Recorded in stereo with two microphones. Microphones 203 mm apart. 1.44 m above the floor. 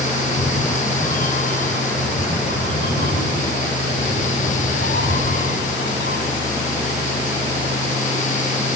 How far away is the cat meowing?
About 7.5 m.